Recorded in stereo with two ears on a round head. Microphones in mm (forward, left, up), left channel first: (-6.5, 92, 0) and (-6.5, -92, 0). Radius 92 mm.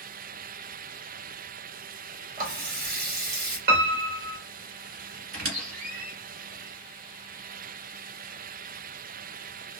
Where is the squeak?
50° right (ahead or behind), 1.3 m.